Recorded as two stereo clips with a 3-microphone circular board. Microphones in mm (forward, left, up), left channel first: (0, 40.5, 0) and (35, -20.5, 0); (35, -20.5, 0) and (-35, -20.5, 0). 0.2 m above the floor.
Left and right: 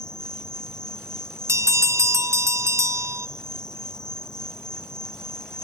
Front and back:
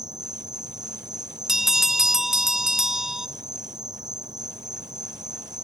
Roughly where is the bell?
Right.